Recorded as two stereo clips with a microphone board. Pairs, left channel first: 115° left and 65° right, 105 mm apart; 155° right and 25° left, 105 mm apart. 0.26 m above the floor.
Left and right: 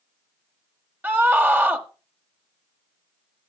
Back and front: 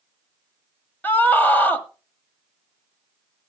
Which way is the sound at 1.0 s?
115° right.